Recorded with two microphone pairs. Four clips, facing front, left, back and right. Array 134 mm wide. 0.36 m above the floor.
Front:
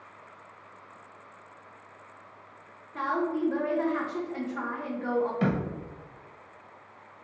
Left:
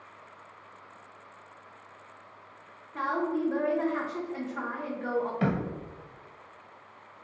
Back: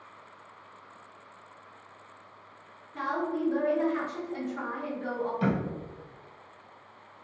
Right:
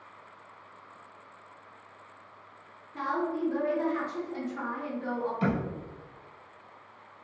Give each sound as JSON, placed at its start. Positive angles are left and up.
{"t": 2.9, "sound": "a woman speaking", "azimuth_deg": 50, "distance_m": 1.0}
{"t": 5.4, "sound": "a thud", "azimuth_deg": 60, "distance_m": 1.6}